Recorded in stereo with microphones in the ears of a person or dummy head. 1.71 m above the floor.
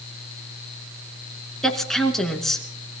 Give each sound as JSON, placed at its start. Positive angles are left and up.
{"t": 1.6, "sound": "a woman speaking", "side_deg": 0, "distance_m": 2.5}